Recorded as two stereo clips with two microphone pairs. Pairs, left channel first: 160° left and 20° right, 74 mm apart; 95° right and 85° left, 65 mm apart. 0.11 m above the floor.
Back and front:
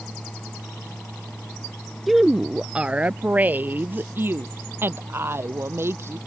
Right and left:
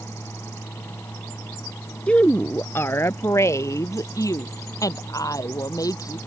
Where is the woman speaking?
105° right; by 6.2 s 75° right.